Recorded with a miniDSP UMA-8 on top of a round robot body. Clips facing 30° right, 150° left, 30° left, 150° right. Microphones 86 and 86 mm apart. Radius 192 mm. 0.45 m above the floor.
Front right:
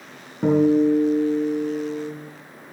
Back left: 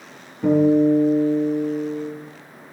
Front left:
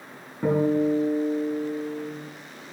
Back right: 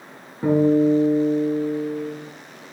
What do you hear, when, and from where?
0.4 s a guitar: 65° right, 4 m